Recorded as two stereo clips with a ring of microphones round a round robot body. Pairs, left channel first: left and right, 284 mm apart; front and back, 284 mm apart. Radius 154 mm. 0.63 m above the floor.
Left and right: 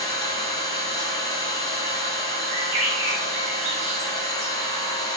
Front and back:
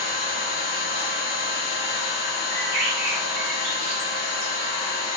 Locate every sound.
0.0 s an engine running: 15° left, 0.8 m
2.5 s a bird: 120° right, 1.1 m